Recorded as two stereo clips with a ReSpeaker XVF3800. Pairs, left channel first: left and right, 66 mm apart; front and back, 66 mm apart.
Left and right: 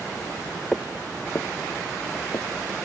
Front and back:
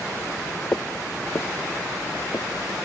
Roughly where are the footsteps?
Ahead.